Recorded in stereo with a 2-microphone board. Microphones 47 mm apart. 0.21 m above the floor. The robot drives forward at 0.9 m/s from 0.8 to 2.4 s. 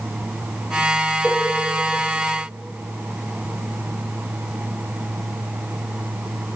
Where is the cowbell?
5° left (ahead or behind), 1.1 m; by 1.4 s 10° left (ahead or behind), 1.0 m.